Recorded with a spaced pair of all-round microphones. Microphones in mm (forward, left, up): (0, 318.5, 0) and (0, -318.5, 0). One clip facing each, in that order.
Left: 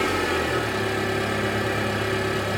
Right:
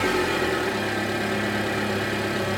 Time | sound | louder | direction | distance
0.0 | an engine running | right 1 dB | centre (ahead or behind) | 1.2 m